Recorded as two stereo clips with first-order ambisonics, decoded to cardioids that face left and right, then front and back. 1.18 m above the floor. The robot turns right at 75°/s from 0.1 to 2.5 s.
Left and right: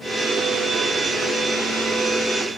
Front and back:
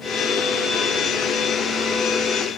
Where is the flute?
I don't hear a flute.